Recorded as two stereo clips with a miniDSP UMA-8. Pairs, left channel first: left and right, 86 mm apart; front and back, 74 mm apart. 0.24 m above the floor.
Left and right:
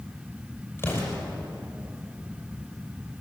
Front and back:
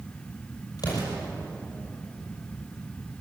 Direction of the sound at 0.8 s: 30° left.